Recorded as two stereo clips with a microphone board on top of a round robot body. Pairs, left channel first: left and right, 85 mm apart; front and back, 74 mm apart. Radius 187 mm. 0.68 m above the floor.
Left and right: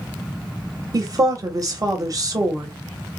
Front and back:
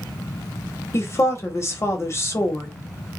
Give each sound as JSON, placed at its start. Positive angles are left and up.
{"t": 0.9, "sound": "a woman speaking", "azimuth_deg": -50, "distance_m": 0.9}